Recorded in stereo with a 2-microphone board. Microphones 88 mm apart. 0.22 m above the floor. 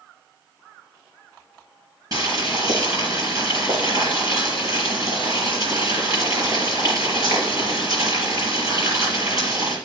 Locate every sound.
2.1 s boiling: 45° right (ahead or behind), 5 m